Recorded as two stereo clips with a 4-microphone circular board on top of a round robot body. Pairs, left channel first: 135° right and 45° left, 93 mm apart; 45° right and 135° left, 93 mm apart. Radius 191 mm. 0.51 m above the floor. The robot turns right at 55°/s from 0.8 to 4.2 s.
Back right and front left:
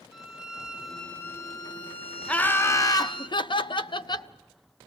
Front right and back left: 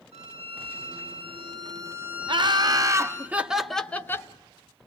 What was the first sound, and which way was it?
A violin, 130° left.